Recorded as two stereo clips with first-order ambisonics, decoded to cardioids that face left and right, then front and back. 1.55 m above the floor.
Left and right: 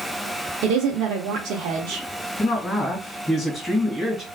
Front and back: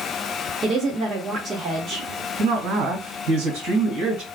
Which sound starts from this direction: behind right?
A woman speaking, at 0.6 s.